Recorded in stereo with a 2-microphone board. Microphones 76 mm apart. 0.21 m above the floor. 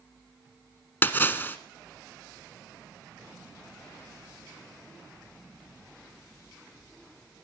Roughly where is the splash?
Left.